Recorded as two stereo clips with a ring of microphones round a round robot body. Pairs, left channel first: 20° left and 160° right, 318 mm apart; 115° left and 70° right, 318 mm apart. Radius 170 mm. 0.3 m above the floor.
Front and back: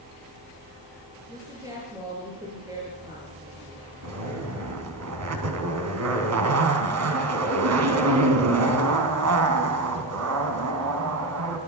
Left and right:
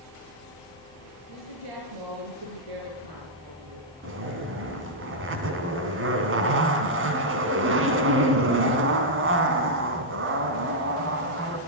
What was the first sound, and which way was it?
A woman speaking, 80° right.